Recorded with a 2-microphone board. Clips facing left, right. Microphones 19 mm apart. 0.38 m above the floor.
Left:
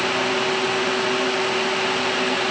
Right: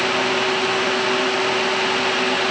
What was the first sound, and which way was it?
Only background noise.